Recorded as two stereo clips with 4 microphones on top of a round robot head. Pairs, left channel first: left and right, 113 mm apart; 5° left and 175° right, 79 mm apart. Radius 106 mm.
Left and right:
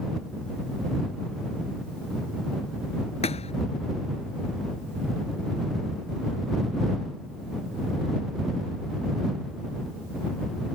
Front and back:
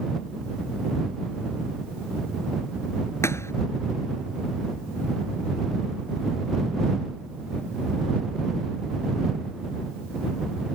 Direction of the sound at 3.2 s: 60° left.